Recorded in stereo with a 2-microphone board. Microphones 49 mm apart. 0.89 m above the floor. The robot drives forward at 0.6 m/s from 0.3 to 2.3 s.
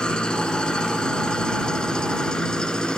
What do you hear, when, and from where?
0.0 s an engine running: 15° left (ahead or behind)